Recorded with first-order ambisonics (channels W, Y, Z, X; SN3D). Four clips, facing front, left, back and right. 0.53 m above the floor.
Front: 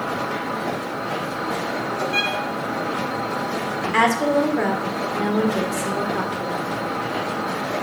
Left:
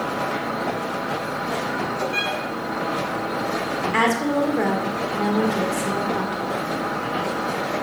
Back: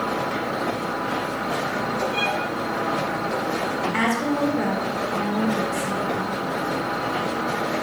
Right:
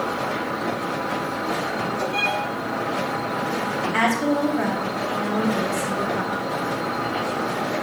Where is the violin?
35° left, 3 m.